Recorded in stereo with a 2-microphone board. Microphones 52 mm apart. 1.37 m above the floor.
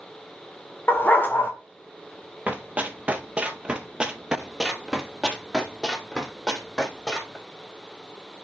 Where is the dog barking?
35° left (ahead or behind), 1.8 m.